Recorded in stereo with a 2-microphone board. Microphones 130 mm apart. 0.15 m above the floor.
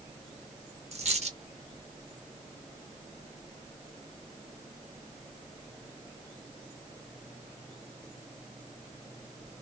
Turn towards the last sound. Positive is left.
turn(degrees=-55)  # may be behind; listen again after turning